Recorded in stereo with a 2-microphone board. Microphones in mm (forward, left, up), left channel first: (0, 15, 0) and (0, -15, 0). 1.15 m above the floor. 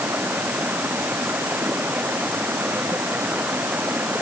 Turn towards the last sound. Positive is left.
turn(degrees=-75)  # may be behind; listen again after turning